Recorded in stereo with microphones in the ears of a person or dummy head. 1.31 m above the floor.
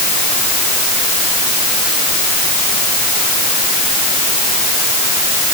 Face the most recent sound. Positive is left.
No sound to turn to.